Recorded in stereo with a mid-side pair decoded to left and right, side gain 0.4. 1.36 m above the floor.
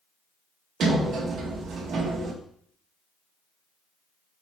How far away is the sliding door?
About 2.5 m.